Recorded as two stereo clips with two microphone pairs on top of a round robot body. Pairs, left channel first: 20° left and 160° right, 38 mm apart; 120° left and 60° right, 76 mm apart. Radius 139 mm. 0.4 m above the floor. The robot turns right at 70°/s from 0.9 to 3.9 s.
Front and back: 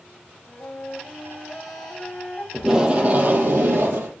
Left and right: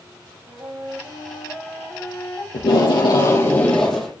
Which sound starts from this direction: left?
Tape being pulled, at 2.5 s.